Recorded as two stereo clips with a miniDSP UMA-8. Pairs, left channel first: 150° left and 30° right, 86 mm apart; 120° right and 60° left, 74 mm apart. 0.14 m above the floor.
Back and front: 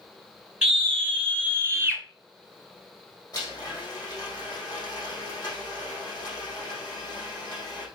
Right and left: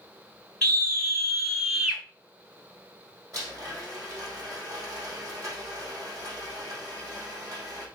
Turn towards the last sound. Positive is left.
turn(degrees=100)